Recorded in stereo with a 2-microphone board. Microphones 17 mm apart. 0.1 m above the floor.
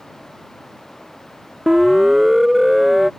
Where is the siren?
20° right (ahead or behind); by 3.1 s 15° right (ahead or behind).